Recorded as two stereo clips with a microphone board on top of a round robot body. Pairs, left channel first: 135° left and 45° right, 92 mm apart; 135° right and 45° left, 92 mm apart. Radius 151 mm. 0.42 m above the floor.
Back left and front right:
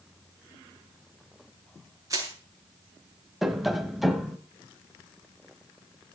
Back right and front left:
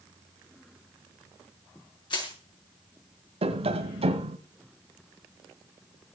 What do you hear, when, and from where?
2.1 s crushing: 100° right, 6 m
3.4 s tapping: 40° left, 1.5 m